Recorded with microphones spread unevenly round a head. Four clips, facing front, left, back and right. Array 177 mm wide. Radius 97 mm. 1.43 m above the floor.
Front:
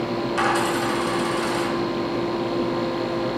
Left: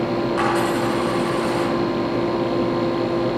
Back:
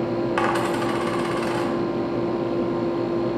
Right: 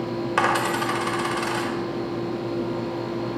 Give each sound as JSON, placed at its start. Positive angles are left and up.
{"t": 0.4, "sound": "a dropped coin", "azimuth_deg": -125, "distance_m": 1.8}